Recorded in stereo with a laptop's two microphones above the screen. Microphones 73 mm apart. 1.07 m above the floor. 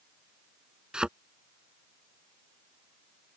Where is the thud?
10° right (ahead or behind).